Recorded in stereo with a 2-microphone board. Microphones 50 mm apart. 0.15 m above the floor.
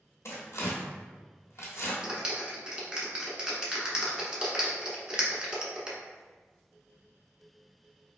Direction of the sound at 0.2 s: 65° left (ahead or behind).